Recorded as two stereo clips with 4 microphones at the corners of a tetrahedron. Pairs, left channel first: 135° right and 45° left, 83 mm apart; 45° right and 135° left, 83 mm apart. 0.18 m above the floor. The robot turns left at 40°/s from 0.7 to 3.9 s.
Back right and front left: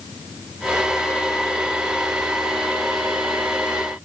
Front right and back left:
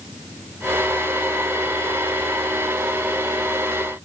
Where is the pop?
I don't hear a pop.